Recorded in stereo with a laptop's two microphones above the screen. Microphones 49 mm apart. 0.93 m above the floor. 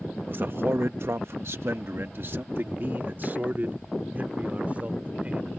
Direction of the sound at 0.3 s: 45° right (ahead or behind).